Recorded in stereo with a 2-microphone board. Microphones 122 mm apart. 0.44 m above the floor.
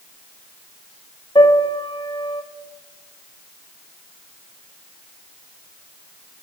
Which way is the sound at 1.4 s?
45° left (ahead or behind).